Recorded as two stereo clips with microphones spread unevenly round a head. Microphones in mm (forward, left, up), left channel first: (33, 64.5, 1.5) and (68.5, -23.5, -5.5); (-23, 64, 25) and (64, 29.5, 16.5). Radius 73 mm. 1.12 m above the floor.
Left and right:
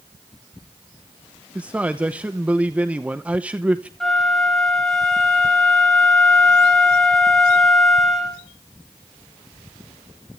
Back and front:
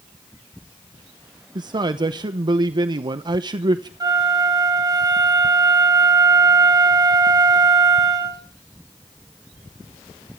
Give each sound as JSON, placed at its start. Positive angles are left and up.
{"t": 1.6, "sound": "a man speaking", "azimuth_deg": 5, "distance_m": 0.9}
{"t": 4.0, "sound": "a flute", "azimuth_deg": 25, "distance_m": 5.0}